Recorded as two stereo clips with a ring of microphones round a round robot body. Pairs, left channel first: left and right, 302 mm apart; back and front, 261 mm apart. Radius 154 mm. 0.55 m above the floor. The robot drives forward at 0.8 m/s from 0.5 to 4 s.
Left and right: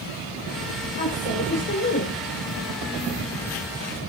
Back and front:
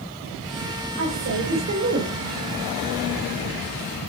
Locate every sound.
1.0 s a woman speaking: 30° left, 3 m; by 2.2 s 40° left, 2 m